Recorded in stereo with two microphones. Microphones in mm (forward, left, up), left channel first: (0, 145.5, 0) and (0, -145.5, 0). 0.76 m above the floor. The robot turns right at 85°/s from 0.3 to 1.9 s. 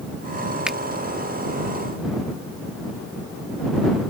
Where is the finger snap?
5° right (ahead or behind); by 0.8 s 5° left (ahead or behind).